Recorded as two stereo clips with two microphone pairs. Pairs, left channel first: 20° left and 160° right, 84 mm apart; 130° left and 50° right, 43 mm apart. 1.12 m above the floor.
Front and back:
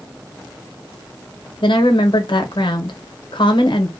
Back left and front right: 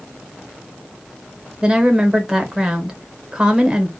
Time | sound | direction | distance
1.6 | a woman speaking | 25° left | 0.8 m